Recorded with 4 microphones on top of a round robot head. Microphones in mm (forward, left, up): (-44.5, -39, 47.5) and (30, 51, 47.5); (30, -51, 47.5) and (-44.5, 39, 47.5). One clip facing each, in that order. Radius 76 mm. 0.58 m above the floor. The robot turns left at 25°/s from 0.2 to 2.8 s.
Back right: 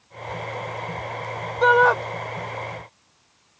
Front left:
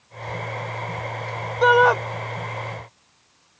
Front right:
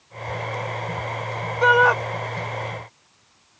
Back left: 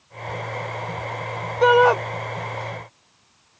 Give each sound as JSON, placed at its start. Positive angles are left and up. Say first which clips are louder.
{"t": 1.6, "sound": "a shout", "louder": "front left 1 dB, back left 3 dB", "azimuth_deg": 130}